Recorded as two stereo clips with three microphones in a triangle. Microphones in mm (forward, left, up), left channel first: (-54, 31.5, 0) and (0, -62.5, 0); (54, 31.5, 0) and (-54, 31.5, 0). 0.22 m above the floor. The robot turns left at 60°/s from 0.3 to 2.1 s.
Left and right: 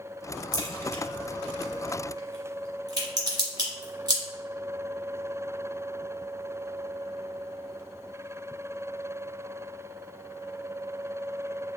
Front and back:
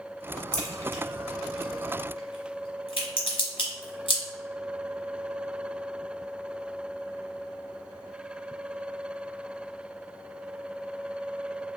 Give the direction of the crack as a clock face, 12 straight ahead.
9 o'clock.